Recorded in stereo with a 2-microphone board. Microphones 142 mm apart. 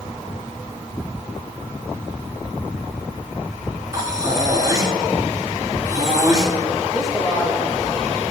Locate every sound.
3.9 s breathing: 25° right (ahead or behind), 1.6 m
6.9 s a woman speaking: 5° left (ahead or behind), 1.7 m